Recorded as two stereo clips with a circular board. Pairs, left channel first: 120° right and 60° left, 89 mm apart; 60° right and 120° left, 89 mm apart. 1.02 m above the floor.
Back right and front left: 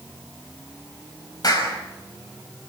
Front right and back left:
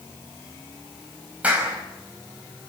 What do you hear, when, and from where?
1.4 s a clap: 165° right, 5 m